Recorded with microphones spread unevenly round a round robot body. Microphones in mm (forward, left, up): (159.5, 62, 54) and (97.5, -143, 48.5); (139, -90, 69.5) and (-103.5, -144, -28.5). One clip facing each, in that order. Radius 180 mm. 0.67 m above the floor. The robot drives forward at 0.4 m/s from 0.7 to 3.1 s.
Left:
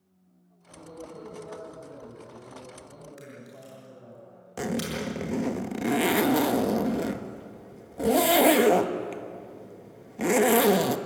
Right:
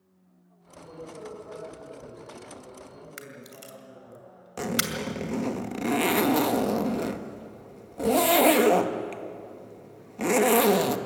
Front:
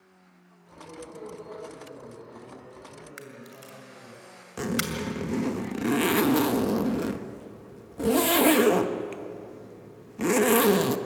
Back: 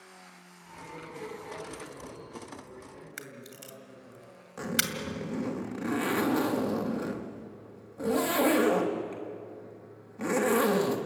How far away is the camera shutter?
About 2 m.